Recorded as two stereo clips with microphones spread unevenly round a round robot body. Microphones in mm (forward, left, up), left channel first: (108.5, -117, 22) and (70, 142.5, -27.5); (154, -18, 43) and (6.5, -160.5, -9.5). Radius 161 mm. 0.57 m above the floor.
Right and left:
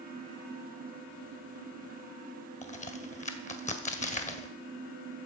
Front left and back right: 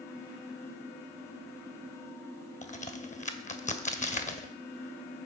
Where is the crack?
15° right, 1.9 m.